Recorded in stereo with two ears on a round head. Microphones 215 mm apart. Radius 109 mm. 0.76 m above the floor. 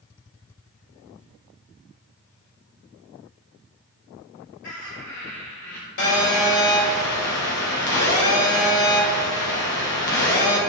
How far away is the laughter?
About 3 m.